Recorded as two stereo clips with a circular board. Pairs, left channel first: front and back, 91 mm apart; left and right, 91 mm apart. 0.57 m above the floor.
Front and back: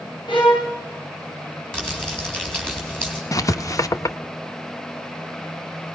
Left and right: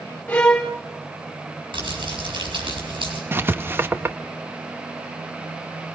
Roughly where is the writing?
Ahead right.